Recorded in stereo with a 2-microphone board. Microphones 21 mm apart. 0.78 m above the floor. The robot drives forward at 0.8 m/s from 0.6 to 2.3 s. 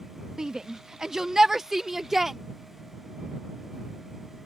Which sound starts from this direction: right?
A shout, at 0.4 s.